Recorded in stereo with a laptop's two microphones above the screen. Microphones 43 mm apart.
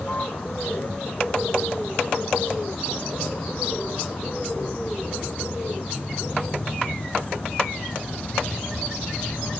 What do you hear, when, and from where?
0.0 s a vehicle: 35° left (ahead or behind)